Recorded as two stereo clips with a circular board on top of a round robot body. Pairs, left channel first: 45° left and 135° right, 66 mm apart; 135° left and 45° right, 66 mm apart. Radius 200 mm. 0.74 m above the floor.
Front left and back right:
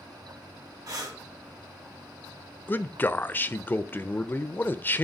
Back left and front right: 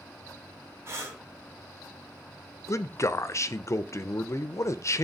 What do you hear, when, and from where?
0.9 s breathing: 100° right, 3 m
2.7 s a man speaking: 100° left, 0.7 m